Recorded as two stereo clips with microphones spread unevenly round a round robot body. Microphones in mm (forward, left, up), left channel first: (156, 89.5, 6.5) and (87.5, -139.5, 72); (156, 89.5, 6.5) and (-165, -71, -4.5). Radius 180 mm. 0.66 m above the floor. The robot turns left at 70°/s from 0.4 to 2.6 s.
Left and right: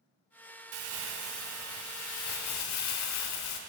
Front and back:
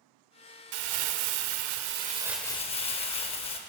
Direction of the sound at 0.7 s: 130° right.